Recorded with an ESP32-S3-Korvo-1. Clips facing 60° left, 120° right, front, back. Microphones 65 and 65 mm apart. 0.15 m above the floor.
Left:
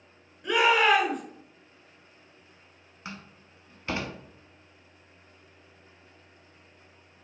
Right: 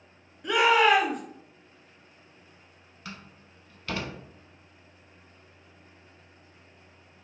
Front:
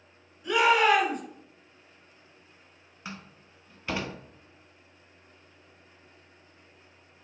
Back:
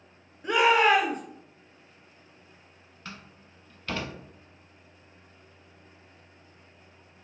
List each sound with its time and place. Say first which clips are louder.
0.4 s a shout: right 1 dB, back 1 dB; 150° left, 1.9 m
3.0 s a door slam: left 1 dB, front 2 dB; 45° left, 0.7 m